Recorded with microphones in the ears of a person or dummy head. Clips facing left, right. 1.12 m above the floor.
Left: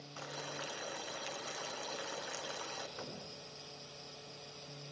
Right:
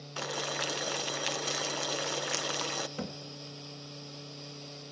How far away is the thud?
About 1.8 m.